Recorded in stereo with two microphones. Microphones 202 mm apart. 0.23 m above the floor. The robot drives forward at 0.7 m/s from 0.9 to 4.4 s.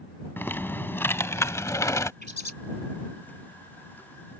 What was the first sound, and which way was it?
Typing on a keyboard, 10° left (ahead or behind).